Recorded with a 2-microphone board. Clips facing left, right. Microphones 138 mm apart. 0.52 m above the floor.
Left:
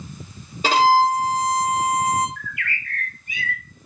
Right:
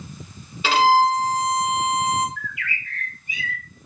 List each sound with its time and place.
0.6 s a violin: 40° left (ahead or behind), 1.0 m
2.4 s a bird: 50° left (ahead or behind), 0.7 m